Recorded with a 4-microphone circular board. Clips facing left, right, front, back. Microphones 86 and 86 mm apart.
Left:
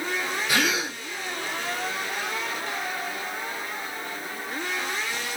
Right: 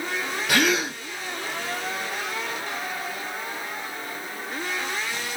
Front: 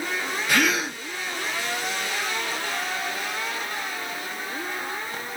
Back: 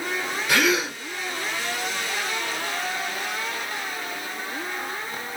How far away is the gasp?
About 2 m.